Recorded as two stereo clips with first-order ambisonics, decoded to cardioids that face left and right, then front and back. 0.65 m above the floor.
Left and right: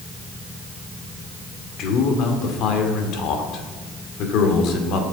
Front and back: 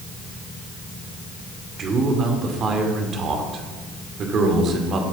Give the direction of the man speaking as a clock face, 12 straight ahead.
8 o'clock.